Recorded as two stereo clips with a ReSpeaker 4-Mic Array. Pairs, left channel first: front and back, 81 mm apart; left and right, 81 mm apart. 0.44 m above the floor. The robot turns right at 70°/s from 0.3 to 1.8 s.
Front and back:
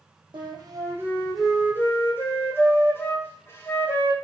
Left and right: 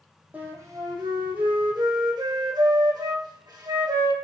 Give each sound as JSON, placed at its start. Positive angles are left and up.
{"t": 0.3, "sound": "a flute", "azimuth_deg": -160, "distance_m": 3.5}